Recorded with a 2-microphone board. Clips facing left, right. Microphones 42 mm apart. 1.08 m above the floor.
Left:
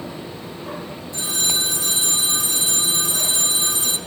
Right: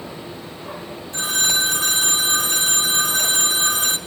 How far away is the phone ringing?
About 1.4 m.